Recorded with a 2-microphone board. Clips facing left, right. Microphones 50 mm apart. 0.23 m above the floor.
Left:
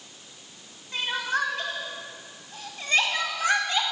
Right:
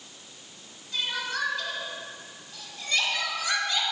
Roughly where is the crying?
Left.